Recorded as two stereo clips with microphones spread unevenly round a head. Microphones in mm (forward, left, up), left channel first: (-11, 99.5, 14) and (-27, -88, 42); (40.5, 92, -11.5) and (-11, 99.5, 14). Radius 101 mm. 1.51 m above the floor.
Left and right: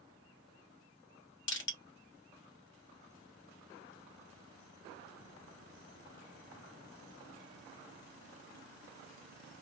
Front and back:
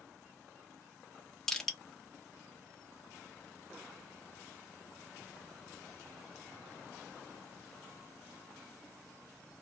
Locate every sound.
1.5 s crushing: 100° left, 1.3 m